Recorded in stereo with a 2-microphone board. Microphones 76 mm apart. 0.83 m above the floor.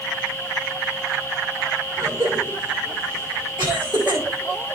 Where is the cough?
85° right, 8 m.